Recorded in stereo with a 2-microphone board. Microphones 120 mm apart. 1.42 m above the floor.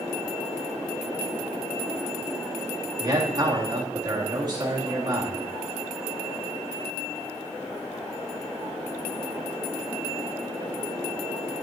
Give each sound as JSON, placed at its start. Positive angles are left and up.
{"t": 3.0, "sound": "a man speaking", "side_deg": -35, "distance_m": 2.0}